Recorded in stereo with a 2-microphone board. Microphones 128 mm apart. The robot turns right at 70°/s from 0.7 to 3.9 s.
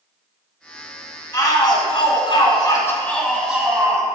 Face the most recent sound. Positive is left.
turn(degrees=-145)